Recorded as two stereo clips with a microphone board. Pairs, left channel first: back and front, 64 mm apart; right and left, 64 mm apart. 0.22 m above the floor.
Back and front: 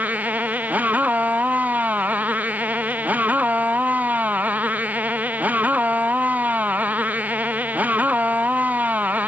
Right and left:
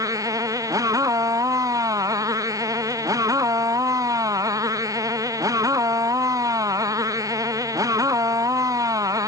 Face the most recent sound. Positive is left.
turn(degrees=65)